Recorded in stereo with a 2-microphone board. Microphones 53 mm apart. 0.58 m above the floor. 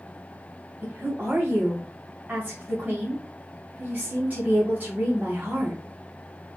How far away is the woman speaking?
About 2 m.